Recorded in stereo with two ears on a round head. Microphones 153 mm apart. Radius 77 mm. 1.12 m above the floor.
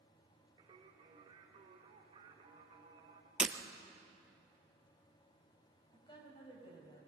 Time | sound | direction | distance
0.6 | singing | 35° right (ahead or behind) | 3 m
3.4 | breaking glass | 5° right (ahead or behind) | 1.3 m
5.9 | a woman speaking | 25° left (ahead or behind) | 5.5 m